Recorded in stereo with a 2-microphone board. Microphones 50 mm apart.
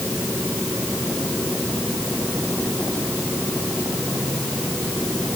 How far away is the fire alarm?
No fire alarm in this recording.